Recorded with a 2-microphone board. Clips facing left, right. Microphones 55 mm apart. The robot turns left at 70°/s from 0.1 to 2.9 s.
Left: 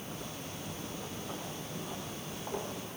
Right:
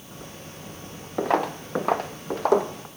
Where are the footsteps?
75° right (ahead or behind), 0.8 m; by 2.9 s 70° right (ahead or behind), 1.5 m.